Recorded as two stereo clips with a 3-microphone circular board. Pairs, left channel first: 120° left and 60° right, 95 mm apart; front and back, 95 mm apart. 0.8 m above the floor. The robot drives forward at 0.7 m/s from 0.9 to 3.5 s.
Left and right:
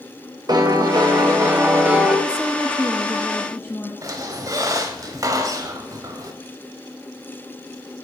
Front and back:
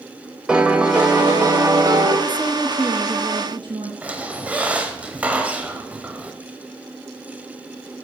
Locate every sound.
0.5 s a piano: 100° right, 1.1 m; by 2.2 s 135° right, 1.6 m
2.3 s a woman speaking: 5° right, 0.6 m; by 3.9 s straight behind, 0.9 m
4.0 s a squeak: 105° right, 1.0 m